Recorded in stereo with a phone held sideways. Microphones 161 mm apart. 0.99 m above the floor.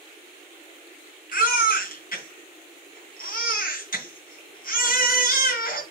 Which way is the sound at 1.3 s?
65° left (ahead or behind).